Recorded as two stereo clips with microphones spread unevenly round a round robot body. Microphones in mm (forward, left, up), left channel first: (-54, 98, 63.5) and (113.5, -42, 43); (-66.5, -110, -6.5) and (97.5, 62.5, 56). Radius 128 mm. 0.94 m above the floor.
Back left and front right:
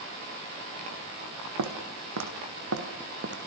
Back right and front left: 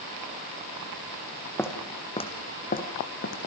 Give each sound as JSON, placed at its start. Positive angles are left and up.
{"t": 1.6, "sound": "footsteps", "azimuth_deg": -50, "distance_m": 3.0}